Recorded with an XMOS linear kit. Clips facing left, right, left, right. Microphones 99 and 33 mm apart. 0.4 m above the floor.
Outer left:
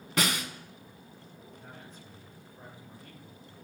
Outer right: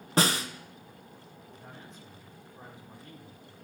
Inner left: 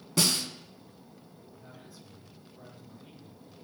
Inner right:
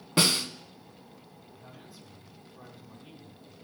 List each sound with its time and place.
0.2 s a snare drum: 35° right (ahead or behind), 1.1 m
1.5 s a man speaking: 20° right (ahead or behind), 4.5 m